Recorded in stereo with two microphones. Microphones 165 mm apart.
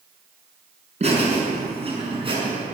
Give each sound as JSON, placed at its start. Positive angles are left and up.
{"t": 1.0, "sound": "laughter", "side_deg": -40, "distance_m": 7.0}